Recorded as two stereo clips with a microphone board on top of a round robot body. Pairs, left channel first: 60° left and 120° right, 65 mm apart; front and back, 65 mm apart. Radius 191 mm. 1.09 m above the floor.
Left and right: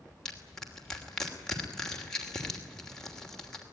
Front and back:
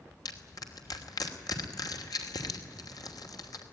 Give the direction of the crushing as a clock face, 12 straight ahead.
1 o'clock.